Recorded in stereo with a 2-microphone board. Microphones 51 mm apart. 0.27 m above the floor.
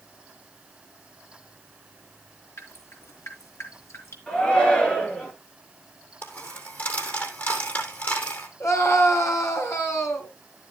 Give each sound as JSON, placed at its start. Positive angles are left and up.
{"t": 2.6, "sound": "dripping", "side_deg": 65, "distance_m": 4.0}
{"t": 4.3, "sound": "a shout", "side_deg": 15, "distance_m": 4.0}
{"t": 6.2, "sound": "a dropped coin", "side_deg": 35, "distance_m": 2.0}
{"t": 8.6, "sound": "a scream", "side_deg": 70, "distance_m": 3.5}